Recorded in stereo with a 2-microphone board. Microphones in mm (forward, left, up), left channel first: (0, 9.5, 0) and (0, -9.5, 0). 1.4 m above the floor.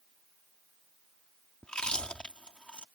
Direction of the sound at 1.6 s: 65° left (ahead or behind).